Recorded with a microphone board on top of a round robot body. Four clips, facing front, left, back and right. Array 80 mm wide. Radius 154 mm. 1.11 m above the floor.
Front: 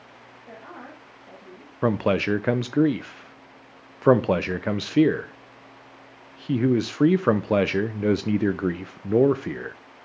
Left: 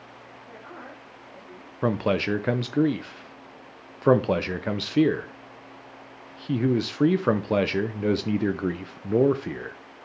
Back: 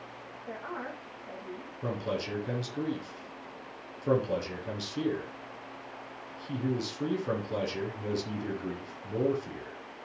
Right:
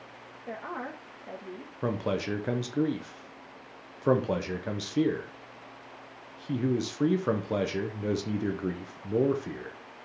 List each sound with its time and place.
0.5 s a woman speaking: 95° right, 1.4 m
1.8 s a man speaking: 20° left, 0.6 m